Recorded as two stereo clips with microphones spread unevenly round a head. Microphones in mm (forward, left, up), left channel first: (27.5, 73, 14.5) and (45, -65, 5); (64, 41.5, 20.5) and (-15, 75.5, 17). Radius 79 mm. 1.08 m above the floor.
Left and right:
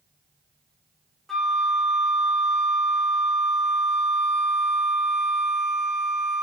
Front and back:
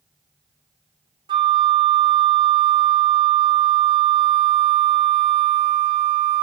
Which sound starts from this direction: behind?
A flute, at 1.3 s.